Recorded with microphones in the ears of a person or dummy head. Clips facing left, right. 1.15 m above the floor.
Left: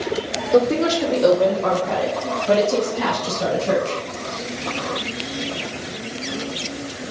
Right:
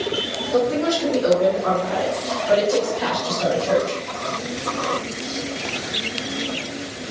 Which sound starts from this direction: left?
A woman speaking, at 0.5 s.